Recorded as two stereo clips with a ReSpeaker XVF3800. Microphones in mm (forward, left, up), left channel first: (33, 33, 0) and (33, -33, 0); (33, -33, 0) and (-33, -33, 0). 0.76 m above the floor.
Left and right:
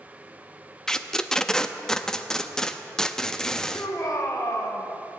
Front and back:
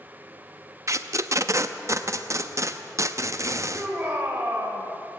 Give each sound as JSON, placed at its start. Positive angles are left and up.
{"t": 0.9, "sound": "tape being pulled", "azimuth_deg": 170, "distance_m": 0.6}
{"t": 3.7, "sound": "a shout", "azimuth_deg": 120, "distance_m": 2.5}